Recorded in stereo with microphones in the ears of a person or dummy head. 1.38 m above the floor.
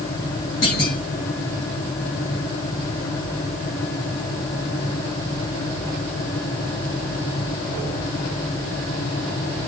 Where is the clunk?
50° left (ahead or behind), 1.7 m.